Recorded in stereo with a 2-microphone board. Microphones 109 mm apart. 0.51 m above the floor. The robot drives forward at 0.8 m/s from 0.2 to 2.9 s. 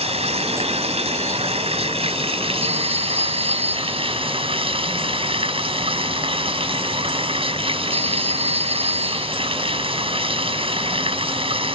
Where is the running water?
75° right (ahead or behind); by 11.8 s 60° right (ahead or behind).